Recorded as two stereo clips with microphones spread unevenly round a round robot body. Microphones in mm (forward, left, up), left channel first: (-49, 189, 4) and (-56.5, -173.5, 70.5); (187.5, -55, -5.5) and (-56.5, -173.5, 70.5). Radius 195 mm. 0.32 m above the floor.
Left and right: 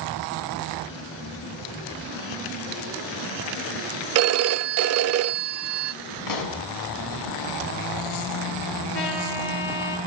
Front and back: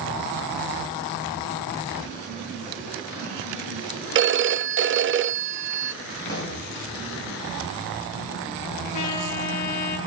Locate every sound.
4.2 s a phone ringing: 115° right, 0.5 m
6.3 s a pop: 95° left, 3.5 m
8.9 s a trumpet: 30° left, 7.5 m